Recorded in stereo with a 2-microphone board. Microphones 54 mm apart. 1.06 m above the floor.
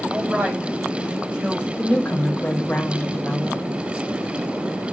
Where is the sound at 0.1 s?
25° right (ahead or behind), 5.5 m.